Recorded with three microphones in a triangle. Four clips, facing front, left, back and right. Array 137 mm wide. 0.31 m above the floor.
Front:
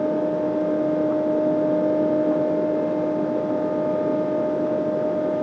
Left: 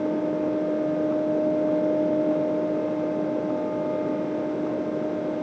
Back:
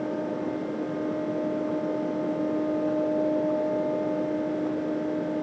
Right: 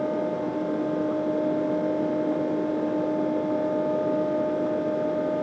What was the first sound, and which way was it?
Only background noise.